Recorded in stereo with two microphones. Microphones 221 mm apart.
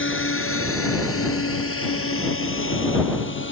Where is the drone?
65° left (ahead or behind); by 3.5 s 60° left (ahead or behind).